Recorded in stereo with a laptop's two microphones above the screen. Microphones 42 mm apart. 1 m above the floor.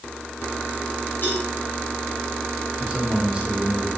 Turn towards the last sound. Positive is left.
turn(degrees=-30)  # may be behind; listen again after turning